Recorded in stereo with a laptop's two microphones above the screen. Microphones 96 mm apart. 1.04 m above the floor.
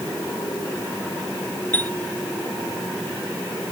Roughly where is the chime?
Centre.